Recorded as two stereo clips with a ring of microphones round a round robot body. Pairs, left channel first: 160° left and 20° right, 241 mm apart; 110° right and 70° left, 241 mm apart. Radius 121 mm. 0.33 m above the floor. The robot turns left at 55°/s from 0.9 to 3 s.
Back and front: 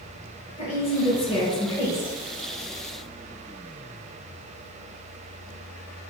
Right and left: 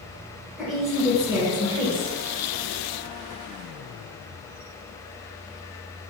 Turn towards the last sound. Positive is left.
turn(degrees=35)